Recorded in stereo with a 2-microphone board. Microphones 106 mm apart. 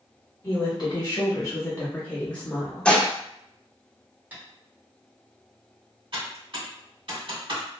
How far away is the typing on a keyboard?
About 1.8 m.